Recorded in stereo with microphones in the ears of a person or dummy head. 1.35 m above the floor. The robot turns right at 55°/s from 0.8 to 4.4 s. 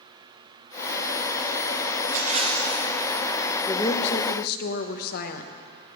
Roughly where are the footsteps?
No footsteps in this recording.